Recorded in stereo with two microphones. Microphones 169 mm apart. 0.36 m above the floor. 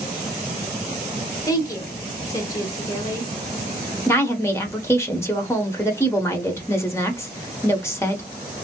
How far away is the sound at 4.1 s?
About 0.8 m.